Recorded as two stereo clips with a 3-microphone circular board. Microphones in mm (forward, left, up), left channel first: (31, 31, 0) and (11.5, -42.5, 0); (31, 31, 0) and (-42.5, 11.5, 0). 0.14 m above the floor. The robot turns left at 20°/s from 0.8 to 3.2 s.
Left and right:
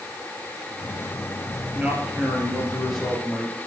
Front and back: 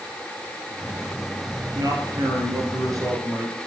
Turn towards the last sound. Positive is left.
turn(degrees=160)